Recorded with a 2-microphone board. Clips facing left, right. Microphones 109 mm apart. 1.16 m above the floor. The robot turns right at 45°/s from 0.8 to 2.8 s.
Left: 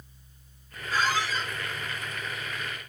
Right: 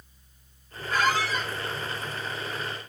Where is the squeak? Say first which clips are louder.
Right 2 dB; 65° right (ahead or behind), 0.8 m; by 1.5 s 80° right, 0.8 m.